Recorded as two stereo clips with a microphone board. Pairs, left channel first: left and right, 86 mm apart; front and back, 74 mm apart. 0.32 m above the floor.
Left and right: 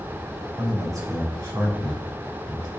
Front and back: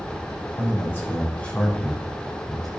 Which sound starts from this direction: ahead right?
A man speaking, at 0.6 s.